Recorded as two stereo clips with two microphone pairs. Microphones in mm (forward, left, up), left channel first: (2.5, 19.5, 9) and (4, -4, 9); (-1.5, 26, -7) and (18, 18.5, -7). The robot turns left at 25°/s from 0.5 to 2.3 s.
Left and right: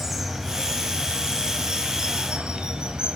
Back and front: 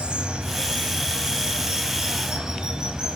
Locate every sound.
0.0 s running water: 10° right, 1.7 m; by 3.2 s 55° right, 1.7 m